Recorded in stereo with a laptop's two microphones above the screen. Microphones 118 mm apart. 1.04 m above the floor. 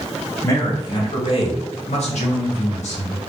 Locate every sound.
0.4 s a man speaking: 25° left (ahead or behind), 1.2 m; by 3.2 s 70° left (ahead or behind), 1.5 m